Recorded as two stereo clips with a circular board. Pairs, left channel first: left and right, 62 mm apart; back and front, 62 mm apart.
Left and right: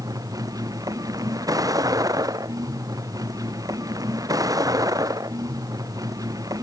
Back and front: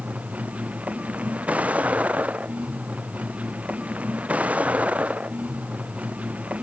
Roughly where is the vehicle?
Right.